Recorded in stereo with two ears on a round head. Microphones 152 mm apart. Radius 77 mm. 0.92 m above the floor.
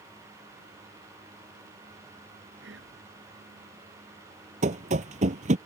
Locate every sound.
2.6 s whispering: 80° right
4.6 s running footsteps: 45° right (ahead or behind)